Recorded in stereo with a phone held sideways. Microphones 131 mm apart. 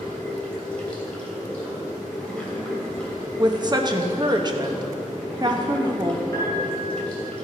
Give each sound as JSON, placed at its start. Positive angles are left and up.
{"t": 0.0, "sound": "running water", "side_deg": 10, "distance_m": 3.0}
{"t": 3.4, "sound": "a woman speaking", "side_deg": -30, "distance_m": 1.0}
{"t": 6.3, "sound": "a piano", "side_deg": 25, "distance_m": 4.5}